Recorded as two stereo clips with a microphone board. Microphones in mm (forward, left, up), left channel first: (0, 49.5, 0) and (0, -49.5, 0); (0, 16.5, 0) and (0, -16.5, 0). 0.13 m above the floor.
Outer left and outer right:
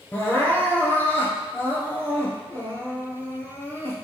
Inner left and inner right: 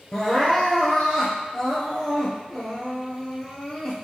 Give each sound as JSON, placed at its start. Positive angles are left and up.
{"t": 0.1, "sound": "crying", "side_deg": 20, "distance_m": 1.7}